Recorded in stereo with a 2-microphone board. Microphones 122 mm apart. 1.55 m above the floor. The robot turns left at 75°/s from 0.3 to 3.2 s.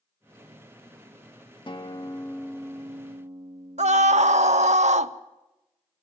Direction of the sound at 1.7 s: 75° left.